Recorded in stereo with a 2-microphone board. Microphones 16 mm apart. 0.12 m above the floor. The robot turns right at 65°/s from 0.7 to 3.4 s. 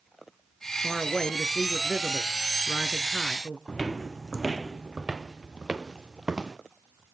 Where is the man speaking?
150° left, 1.2 m; by 3.6 s 45° right, 1.2 m.